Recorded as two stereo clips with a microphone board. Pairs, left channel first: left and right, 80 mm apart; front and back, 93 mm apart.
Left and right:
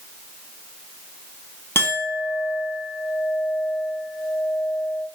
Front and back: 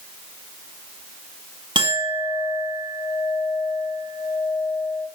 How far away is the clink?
About 5 m.